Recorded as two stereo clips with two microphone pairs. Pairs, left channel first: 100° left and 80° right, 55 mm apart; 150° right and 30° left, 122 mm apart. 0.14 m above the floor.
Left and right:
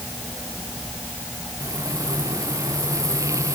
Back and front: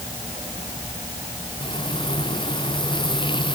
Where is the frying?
100° right.